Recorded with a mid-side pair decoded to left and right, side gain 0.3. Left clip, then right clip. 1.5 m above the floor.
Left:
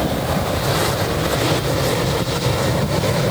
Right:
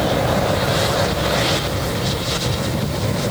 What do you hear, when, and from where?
Only background noise.